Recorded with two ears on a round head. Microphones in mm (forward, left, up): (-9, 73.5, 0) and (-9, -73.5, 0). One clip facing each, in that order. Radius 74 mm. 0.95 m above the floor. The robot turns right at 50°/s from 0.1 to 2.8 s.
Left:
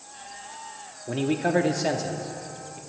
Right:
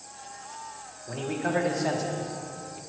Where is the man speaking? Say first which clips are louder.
Left 5 dB; 75° left, 0.6 m; by 2.8 s 165° left, 0.6 m.